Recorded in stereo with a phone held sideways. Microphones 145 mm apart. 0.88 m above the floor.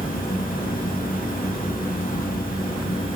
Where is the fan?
75° left (ahead or behind), 1.8 m.